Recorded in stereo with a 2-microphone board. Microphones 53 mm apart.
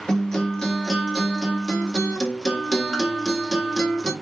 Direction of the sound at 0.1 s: 10° left (ahead or behind).